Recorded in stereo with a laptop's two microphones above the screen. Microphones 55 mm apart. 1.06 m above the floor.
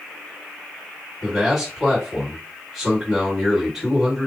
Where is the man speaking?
5° right (ahead or behind), 2.5 m.